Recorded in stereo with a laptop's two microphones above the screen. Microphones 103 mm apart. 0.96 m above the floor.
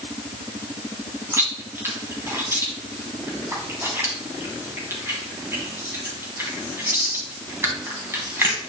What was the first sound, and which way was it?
Chewing, 25° right (ahead or behind).